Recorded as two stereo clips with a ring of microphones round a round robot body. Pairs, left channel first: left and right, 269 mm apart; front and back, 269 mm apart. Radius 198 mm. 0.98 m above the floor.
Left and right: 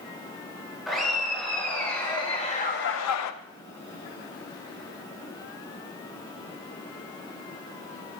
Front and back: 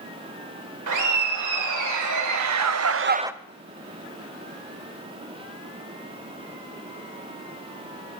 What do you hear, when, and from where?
0.9 s laughter: straight behind, 3.5 m; by 3.3 s 95° left, 0.6 m